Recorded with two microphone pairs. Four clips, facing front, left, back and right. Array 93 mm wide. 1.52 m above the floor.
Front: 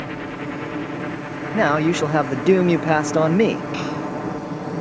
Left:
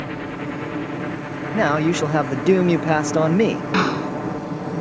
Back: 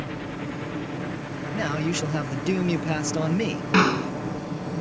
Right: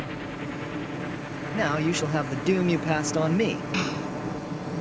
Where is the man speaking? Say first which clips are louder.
Left 7 dB, front 10 dB; 35° left.